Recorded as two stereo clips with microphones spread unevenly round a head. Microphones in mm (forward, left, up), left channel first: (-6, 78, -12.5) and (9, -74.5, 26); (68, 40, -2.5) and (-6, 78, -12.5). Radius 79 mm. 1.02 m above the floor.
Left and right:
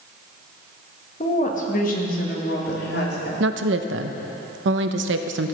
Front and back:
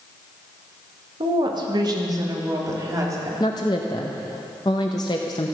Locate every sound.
1.2 s a woman speaking: 140° left, 1.4 m; by 3.3 s 105° left, 3 m
3.4 s a woman speaking: 90° right, 0.7 m